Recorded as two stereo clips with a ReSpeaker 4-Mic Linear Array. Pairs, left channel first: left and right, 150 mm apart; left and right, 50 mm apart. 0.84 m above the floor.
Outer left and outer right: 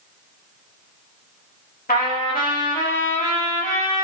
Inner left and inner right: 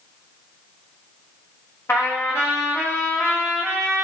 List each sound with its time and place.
1.9 s a trumpet: 75° left (ahead or behind), 1.3 m